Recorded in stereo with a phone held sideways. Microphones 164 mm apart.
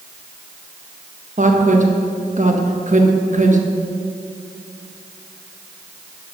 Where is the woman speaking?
50° right (ahead or behind), 1.4 m.